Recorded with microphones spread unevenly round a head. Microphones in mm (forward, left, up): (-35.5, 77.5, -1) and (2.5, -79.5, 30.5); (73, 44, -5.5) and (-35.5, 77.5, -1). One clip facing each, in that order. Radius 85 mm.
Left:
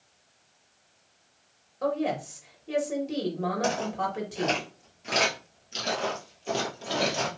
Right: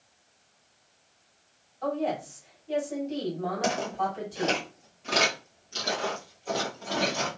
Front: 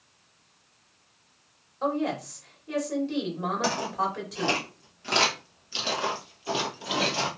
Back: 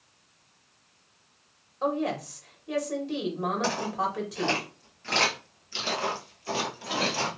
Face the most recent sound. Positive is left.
turn(degrees=50)